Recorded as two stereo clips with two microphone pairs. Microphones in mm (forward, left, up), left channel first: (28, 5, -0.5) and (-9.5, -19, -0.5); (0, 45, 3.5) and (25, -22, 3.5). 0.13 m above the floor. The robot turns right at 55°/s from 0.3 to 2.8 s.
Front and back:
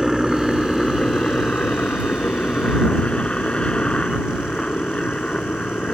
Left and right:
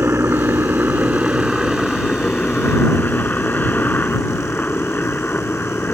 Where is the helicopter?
65° right; by 6.0 s 75° left.